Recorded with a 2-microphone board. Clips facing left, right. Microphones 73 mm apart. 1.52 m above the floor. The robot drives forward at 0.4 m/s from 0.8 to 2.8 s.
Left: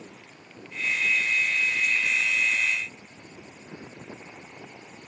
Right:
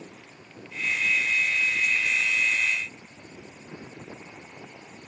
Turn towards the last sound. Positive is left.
No sound to turn to.